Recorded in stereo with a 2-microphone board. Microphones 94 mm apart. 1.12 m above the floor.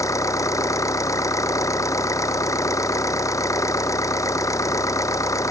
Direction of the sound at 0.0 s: 35° left (ahead or behind).